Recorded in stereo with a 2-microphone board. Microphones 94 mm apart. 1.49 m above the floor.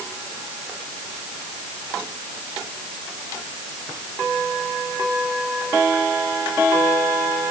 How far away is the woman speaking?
No woman speaking in this recording.